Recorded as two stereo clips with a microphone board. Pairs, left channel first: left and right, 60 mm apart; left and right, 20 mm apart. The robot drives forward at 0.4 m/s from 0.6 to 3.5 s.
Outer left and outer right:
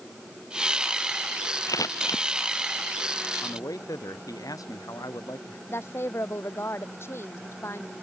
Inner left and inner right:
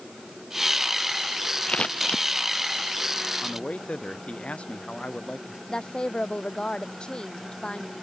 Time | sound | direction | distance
1.7 | scissors | 70° left (ahead or behind) | ?
3.4 | a man speaking | 80° left | ?
5.7 | a woman speaking | 45° left (ahead or behind) | ?